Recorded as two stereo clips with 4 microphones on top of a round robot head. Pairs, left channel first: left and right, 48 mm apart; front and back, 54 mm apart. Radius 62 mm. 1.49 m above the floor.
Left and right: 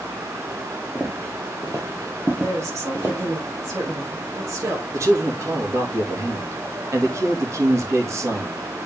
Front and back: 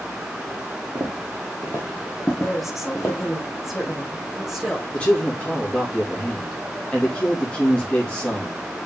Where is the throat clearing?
I don't hear throat clearing.